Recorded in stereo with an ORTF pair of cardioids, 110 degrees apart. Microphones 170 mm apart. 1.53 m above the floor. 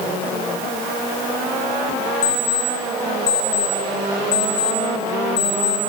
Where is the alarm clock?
70° left, 5 m.